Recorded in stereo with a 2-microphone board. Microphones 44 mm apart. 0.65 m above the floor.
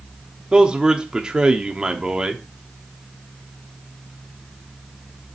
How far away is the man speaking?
About 1.1 m.